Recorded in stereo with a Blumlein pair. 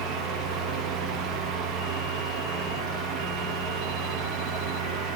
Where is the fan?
30° right, 0.9 m.